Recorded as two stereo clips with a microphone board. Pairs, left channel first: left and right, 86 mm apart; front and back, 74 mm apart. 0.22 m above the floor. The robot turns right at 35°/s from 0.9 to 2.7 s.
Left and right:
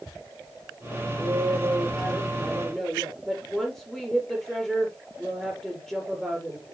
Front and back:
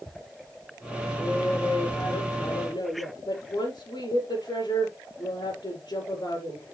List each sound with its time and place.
1.2 s a woman speaking: 50° right, 5 m; by 6.6 s 5° left, 5 m